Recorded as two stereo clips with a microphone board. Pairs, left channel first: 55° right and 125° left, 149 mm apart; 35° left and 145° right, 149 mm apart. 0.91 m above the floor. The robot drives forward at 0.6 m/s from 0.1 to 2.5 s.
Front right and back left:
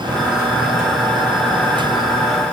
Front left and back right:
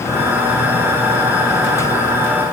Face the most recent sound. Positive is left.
No sound to turn to.